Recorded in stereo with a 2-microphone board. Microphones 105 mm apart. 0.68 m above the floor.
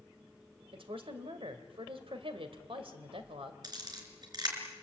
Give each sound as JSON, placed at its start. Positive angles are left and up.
{"t": 0.7, "sound": "a woman speaking", "side_deg": -65, "distance_m": 2.5}
{"t": 3.6, "sound": "a camera shutter", "side_deg": -45, "distance_m": 4.0}